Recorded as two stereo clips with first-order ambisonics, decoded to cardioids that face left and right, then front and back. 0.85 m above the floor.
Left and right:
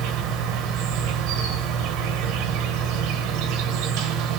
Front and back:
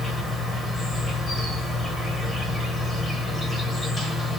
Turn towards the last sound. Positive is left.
turn(degrees=-80)